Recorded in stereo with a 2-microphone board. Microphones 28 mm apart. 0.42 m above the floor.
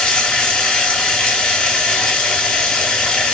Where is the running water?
35° left (ahead or behind), 0.9 m.